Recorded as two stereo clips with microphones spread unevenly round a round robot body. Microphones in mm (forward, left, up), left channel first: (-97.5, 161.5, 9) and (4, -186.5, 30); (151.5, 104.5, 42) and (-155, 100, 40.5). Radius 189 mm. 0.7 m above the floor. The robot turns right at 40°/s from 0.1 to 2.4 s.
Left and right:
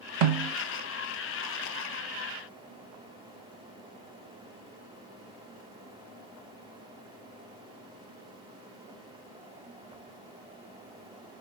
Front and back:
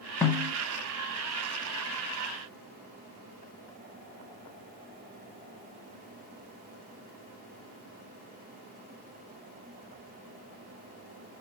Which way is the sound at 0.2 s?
85° right.